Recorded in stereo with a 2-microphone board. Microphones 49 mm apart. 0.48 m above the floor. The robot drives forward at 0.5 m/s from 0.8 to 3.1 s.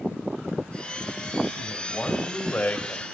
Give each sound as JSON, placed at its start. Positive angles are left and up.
{"t": 1.6, "sound": "a man speaking", "side_deg": 20, "distance_m": 2.5}